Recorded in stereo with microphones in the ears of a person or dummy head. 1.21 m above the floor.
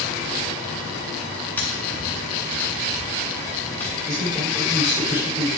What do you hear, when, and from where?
1.6 s tapping: 10° left (ahead or behind), 0.8 m
4.0 s a man speaking: 20° right (ahead or behind), 3 m